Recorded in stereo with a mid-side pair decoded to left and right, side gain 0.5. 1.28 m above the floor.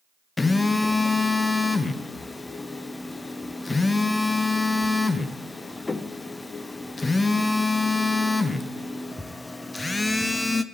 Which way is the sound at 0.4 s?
20° left.